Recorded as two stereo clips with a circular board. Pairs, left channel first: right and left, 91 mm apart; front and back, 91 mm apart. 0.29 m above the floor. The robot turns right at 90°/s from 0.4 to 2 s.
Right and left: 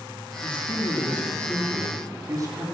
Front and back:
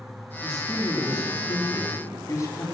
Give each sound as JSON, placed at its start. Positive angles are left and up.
{"t": 0.4, "sound": "a man speaking", "azimuth_deg": -95, "distance_m": 2.5}